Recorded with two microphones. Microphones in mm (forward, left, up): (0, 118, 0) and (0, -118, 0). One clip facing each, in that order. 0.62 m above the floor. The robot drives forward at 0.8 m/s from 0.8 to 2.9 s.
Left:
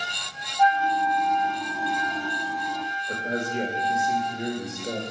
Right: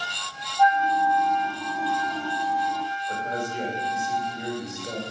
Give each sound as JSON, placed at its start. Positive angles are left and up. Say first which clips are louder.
{"t": 0.6, "sound": "a flute", "louder": "right 1 dB", "side_deg": 35, "distance_m": 0.7}
{"t": 3.1, "sound": "a man speaking", "louder": "left 4 dB", "side_deg": 20, "distance_m": 1.8}